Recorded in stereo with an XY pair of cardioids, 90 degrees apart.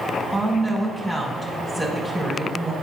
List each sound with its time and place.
0.3 s a woman speaking: 10° left, 5 m